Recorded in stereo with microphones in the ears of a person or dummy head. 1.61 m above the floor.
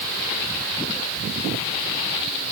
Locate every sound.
Only background noise.